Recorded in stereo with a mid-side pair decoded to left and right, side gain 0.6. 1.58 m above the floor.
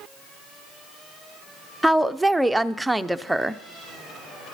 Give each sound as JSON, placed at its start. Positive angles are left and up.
{"t": 1.8, "sound": "a woman speaking", "azimuth_deg": -5, "distance_m": 0.6}